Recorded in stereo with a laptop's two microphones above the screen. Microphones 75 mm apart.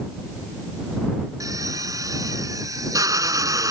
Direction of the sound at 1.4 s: 50° right (ahead or behind).